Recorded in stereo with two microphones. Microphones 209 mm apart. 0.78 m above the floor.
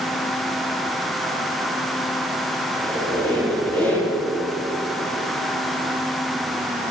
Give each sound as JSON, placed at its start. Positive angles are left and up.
{"t": 2.7, "sound": "a squeak", "side_deg": 5, "distance_m": 7.0}